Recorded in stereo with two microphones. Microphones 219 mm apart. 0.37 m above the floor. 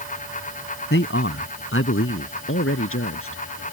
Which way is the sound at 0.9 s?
60° left (ahead or behind).